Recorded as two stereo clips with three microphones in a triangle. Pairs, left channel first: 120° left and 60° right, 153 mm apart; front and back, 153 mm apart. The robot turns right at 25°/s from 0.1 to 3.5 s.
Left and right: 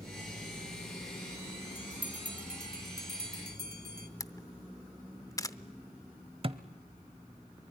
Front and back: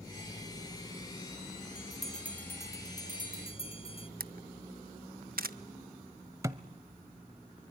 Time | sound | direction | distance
1.8 | a bell | 95° right | 1.7 m
4.2 | a camera shutter | 175° right | 0.6 m
6.4 | a thud | 110° right | 0.8 m